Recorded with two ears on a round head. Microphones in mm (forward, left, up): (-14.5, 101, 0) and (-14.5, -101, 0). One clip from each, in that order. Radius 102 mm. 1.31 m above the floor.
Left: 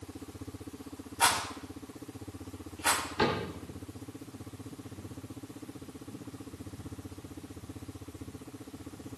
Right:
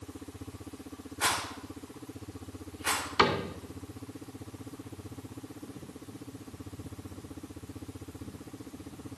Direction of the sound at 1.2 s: 75° left (ahead or behind).